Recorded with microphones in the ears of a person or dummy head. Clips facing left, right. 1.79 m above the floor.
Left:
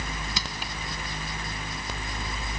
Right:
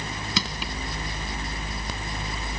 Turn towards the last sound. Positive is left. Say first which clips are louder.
# right 5 dB
turn(degrees=-70)  # may be behind; listen again after turning